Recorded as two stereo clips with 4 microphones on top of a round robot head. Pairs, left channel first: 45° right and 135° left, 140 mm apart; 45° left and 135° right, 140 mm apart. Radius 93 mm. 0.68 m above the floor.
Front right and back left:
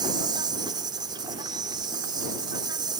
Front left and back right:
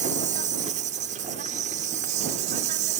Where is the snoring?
No snoring in this recording.